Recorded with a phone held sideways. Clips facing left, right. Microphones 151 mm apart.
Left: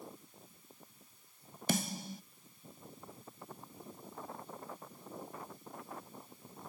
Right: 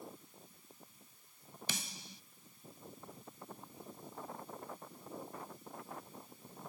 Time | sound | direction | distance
1.7 | a snare drum | 50° left (ahead or behind) | ?